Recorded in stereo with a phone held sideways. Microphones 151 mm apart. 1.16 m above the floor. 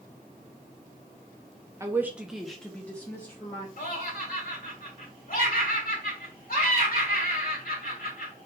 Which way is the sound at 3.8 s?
75° left (ahead or behind).